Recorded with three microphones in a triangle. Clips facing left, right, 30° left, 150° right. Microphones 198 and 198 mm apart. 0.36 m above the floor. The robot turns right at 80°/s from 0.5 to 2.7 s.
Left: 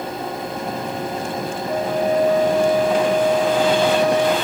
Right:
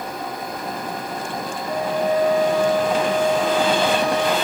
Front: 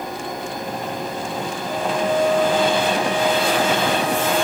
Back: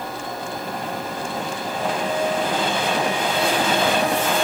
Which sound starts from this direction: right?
A flute, at 1.7 s.